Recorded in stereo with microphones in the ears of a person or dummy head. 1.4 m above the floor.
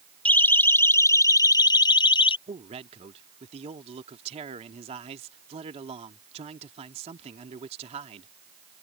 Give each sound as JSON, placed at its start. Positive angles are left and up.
{"t": 0.2, "sound": "a siren", "side_deg": 5}
{"t": 2.5, "sound": "a man speaking", "side_deg": -30}